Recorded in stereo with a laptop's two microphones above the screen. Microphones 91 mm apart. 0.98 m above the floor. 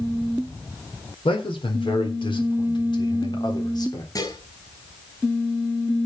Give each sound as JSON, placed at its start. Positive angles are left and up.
{"t": 1.2, "sound": "a man speaking", "side_deg": 75, "distance_m": 3.5}
{"t": 4.2, "sound": "dishes clattering", "side_deg": 45, "distance_m": 5.0}